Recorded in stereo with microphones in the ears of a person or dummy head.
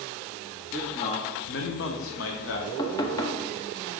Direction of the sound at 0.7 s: 10° left (ahead or behind).